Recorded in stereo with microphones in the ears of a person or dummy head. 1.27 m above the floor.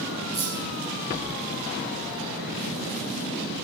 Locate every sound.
0.3 s keys jangling: 50° left (ahead or behind), 8.5 m